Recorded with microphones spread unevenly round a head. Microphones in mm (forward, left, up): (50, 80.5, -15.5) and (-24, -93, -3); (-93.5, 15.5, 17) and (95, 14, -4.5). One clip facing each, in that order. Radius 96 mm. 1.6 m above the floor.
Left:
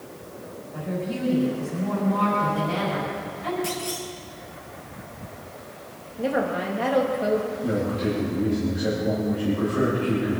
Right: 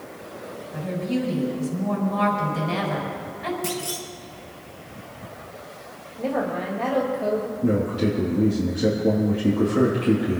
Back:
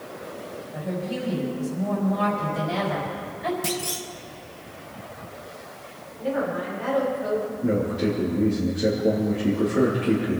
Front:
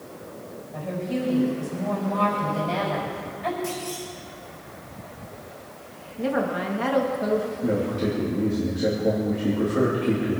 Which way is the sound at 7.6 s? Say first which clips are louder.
Right 3 dB, back 1 dB; 90° right.